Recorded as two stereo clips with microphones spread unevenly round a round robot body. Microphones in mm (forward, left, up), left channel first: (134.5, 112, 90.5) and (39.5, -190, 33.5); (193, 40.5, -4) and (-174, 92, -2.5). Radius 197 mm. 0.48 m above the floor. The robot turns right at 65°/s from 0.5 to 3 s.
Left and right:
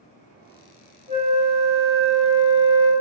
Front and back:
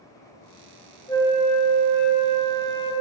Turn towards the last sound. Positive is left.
turn(degrees=45)